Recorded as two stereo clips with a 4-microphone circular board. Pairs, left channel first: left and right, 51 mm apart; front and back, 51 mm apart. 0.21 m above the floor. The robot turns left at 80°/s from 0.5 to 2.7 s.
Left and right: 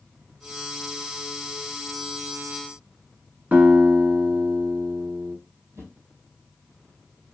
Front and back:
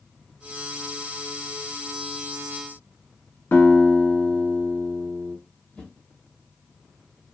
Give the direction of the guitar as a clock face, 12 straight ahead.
1 o'clock.